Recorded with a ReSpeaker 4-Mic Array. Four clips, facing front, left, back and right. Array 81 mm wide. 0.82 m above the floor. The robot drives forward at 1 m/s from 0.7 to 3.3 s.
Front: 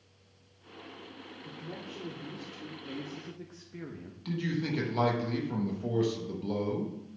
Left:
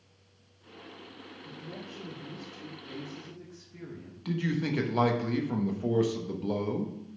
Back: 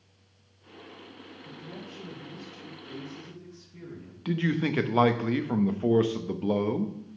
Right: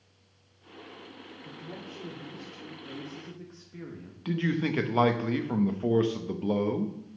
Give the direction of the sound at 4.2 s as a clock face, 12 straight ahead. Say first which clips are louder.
Right 2 dB, back 5 dB; 5 o'clock.